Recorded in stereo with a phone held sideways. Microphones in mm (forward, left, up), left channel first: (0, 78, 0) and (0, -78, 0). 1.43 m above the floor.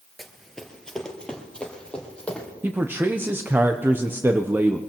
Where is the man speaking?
15° right (ahead or behind), 0.6 m.